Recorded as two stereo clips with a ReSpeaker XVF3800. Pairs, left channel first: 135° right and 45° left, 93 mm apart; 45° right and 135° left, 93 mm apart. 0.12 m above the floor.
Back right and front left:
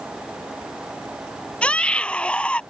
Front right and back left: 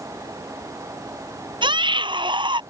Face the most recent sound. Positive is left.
turn(degrees=150)